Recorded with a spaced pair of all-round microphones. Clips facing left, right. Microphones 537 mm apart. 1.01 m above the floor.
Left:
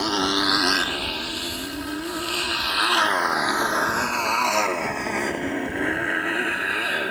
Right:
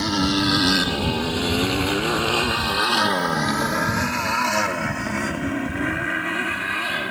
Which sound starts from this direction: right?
A motorcycle, at 0.0 s.